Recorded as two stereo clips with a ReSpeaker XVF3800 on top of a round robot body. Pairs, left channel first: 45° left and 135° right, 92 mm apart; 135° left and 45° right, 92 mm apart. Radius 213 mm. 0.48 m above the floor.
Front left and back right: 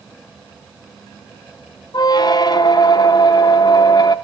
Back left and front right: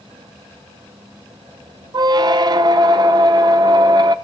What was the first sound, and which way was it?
A squeak, straight ahead.